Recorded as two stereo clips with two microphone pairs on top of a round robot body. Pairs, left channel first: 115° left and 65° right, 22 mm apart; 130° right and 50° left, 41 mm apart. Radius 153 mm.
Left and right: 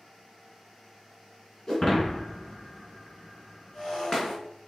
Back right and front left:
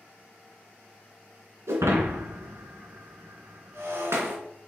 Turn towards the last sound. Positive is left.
turn(degrees=45)